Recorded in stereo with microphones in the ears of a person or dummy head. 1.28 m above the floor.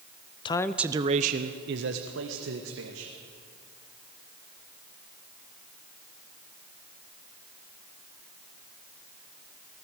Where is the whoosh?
I don't hear a whoosh.